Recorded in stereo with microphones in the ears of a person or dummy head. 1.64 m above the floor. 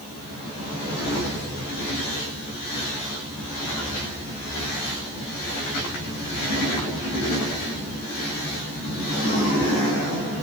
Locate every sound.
Only background noise.